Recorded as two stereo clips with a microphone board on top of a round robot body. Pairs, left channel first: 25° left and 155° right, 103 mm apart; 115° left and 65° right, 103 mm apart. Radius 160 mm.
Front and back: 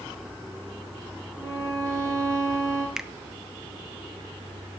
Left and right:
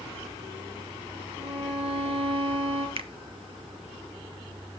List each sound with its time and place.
1.4 s a violin: 100° right, 4.5 m
3.0 s a finger snap: 75° right, 1.0 m